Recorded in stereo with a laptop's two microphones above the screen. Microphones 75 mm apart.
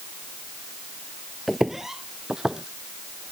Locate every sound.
1.5 s footsteps: 5° left (ahead or behind); by 3.3 s 10° right (ahead or behind)